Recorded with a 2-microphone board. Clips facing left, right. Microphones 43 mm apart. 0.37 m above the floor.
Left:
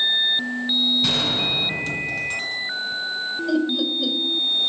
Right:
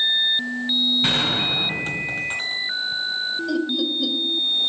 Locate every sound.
1.0 s a gunshot: 30° right (ahead or behind), 1.9 m
3.5 s laughter: 10° left (ahead or behind), 1.4 m